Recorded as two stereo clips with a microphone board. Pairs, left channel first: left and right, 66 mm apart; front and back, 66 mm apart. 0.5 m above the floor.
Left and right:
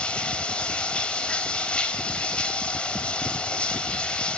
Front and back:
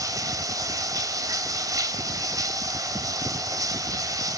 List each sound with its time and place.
0.0 s running water: 160° left, 1.8 m